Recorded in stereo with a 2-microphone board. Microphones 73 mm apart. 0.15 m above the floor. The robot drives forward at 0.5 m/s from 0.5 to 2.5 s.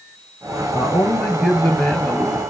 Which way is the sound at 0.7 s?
10° left (ahead or behind).